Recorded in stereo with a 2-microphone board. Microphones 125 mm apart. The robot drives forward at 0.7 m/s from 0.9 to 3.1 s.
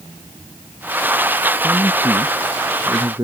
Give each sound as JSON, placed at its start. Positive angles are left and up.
{"t": 1.6, "sound": "a man speaking", "side_deg": -30}